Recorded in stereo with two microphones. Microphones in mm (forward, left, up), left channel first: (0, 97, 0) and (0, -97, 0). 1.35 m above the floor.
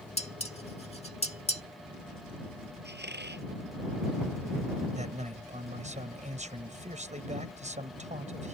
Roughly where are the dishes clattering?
Left.